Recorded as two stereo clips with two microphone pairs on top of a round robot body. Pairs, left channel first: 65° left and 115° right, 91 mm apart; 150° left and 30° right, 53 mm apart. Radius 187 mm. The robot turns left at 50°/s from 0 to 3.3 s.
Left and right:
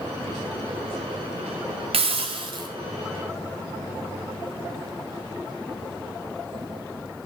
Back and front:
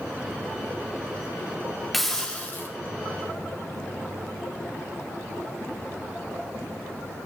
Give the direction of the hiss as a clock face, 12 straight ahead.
4 o'clock.